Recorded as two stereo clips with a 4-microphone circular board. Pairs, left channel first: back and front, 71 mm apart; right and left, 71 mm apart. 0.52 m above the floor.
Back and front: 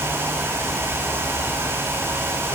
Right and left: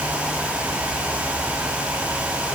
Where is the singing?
No singing in this recording.